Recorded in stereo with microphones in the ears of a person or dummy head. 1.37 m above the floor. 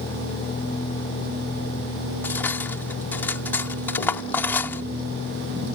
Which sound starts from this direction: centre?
Cutlery clinking, at 2.2 s.